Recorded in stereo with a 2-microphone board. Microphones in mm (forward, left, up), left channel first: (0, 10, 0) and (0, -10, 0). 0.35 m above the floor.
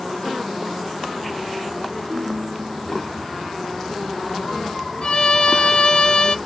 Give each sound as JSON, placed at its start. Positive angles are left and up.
{"t": 2.1, "sound": "a ringtone", "side_deg": -40, "distance_m": 4.0}
{"t": 5.0, "sound": "a violin", "side_deg": 45, "distance_m": 0.6}